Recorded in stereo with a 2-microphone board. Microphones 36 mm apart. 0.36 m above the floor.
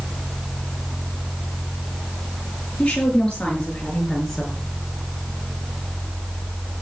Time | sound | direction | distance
2.8 | a woman speaking | 25° left (ahead or behind) | 6.5 m